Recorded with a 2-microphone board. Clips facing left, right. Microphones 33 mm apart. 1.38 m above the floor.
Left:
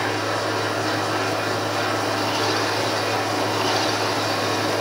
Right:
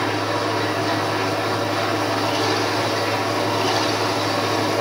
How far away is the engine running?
About 6.5 m.